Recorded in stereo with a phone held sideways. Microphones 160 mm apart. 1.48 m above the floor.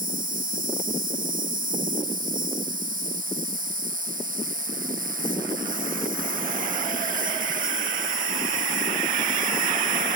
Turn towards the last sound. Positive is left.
turn(degrees=-60)  # may be behind; listen again after turning